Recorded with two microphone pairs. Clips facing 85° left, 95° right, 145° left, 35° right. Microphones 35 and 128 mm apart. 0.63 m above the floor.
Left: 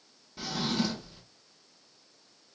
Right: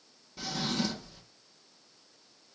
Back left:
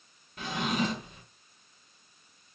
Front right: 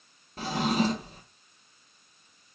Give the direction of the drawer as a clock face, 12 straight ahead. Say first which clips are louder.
Left 2 dB, front right 4 dB; 12 o'clock.